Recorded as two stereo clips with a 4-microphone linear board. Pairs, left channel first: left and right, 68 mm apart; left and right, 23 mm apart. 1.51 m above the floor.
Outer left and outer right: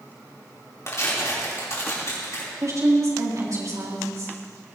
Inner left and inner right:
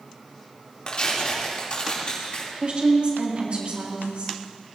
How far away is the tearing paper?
About 3.5 m.